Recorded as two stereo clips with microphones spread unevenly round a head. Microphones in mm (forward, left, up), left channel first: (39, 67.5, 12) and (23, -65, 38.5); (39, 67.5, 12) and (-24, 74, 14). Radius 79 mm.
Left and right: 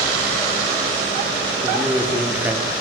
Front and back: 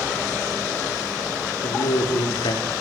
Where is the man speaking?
20° right, 5 m.